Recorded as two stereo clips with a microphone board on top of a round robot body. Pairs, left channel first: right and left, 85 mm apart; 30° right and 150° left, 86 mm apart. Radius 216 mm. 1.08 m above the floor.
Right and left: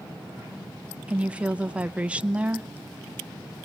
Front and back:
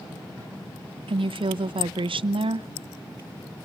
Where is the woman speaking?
165° left, 0.8 m.